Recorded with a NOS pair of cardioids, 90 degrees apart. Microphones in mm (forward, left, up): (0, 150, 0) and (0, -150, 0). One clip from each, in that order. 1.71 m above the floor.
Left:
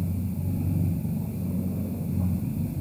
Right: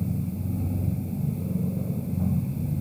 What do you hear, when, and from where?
0.0 s a machine running: 5° right, 3.5 m